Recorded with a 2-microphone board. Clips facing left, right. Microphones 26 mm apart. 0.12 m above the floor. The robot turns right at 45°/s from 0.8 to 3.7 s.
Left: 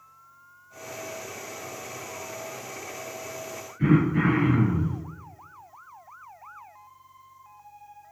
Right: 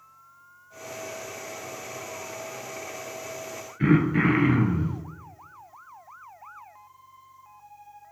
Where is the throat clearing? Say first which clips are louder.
Right 1 dB; 50° right (ahead or behind), 0.5 m.